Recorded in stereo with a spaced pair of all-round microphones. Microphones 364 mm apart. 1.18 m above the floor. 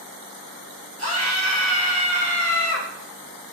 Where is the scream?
40° left (ahead or behind), 5 m.